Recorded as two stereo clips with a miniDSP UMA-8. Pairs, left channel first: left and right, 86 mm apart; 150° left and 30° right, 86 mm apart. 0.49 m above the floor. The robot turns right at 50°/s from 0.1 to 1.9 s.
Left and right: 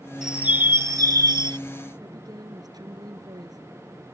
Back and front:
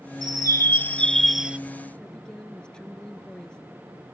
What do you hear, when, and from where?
0.2 s a bird: 175° right; by 1.6 s 105° right
2.0 s a woman speaking: 130° right